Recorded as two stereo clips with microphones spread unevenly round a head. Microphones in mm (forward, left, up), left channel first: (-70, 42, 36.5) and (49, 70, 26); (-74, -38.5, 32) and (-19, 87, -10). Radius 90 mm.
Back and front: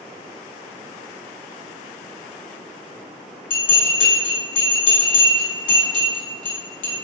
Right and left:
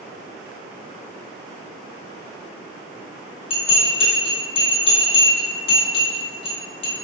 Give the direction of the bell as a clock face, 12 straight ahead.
5 o'clock.